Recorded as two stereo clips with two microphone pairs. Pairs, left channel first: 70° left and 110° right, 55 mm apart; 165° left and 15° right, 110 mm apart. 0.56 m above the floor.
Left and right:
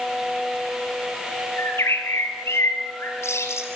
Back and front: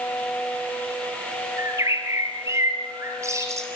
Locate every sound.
1.6 s a bird: 45° left, 4 m